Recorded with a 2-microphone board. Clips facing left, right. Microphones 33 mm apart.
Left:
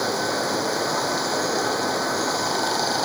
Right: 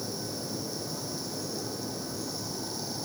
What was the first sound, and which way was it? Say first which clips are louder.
Running water: left 13 dB; 80° left.